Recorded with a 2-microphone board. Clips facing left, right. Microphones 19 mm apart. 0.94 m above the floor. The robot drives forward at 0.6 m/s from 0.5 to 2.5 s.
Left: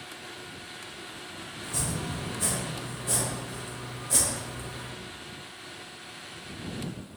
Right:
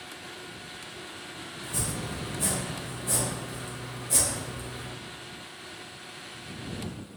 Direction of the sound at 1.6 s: 20° left (ahead or behind).